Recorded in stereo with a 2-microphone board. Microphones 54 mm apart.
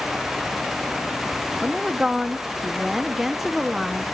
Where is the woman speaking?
5° right (ahead or behind), 0.7 m.